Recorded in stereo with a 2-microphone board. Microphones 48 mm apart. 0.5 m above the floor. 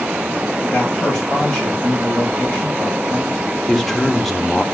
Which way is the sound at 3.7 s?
5° left (ahead or behind).